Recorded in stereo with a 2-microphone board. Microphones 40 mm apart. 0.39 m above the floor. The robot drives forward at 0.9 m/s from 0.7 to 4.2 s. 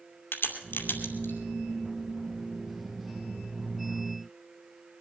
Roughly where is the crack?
Left.